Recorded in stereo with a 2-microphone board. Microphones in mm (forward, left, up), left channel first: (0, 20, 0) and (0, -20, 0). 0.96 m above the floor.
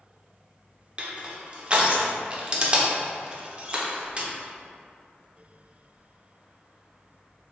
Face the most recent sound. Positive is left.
turn(degrees=-25)  # may be behind; listen again after turning